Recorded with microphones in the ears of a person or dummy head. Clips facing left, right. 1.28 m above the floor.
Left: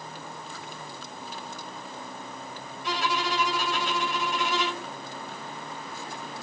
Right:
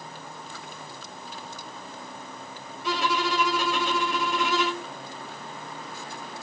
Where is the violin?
70° right (ahead or behind), 0.6 m.